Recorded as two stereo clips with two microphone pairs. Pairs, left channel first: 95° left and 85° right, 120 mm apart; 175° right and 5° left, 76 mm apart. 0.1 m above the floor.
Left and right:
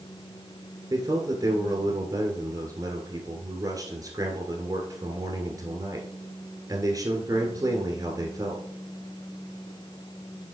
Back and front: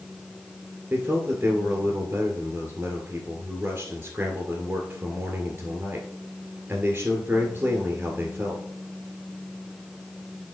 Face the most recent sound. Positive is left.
turn(degrees=-45)